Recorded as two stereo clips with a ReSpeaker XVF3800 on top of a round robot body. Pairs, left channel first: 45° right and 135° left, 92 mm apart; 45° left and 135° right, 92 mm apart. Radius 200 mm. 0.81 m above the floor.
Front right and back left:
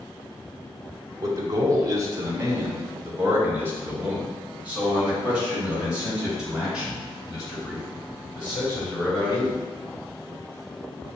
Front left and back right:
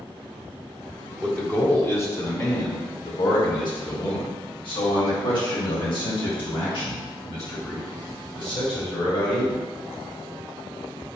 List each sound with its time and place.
1.2 s a man speaking: 120° left, 1.3 m; by 9.6 s 45° left, 5 m